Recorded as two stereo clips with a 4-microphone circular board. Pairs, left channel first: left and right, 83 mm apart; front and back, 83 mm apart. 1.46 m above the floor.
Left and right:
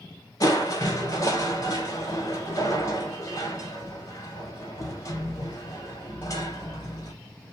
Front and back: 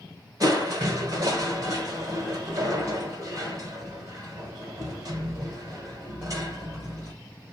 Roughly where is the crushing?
Behind left.